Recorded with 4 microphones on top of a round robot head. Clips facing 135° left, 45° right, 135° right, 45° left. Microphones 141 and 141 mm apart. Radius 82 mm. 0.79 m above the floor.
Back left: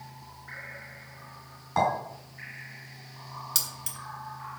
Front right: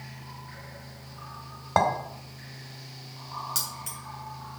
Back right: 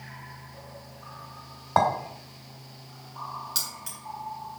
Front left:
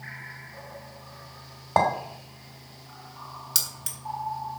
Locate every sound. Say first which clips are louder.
1.8 s a clink: front right 2 dB, even; 20° right, 2 m
3.5 s keys jangling: front right 4 dB, back right 2 dB; 80° left, 1.8 m